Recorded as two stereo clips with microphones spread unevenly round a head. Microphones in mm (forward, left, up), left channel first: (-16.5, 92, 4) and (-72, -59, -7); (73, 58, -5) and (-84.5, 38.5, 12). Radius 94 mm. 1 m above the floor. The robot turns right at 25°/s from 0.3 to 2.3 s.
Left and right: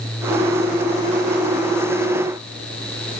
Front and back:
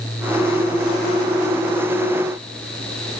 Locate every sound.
Only background noise.